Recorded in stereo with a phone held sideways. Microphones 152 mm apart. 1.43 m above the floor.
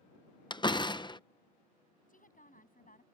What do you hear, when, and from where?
0.5 s a door slam: 30° left (ahead or behind)
2.1 s a woman speaking: 60° left (ahead or behind)